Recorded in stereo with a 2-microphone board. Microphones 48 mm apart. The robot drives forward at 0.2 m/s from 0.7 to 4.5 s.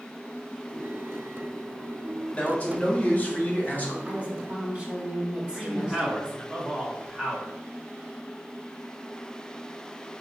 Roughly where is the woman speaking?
Right.